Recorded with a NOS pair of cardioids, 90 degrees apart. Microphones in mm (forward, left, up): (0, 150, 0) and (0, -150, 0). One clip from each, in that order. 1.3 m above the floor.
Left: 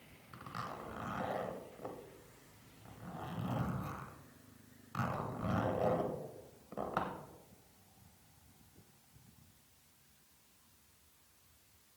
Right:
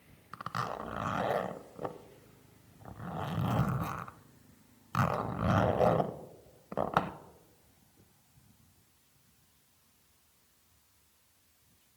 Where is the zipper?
50° right, 0.7 m.